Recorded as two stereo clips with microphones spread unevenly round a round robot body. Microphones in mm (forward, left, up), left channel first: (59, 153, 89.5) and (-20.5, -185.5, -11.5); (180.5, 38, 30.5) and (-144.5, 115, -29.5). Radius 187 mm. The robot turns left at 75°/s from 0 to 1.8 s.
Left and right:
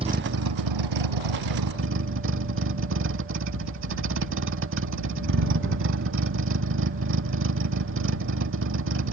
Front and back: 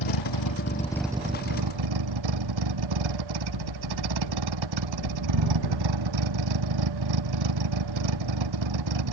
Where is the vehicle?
25° right; by 9.1 s 160° right.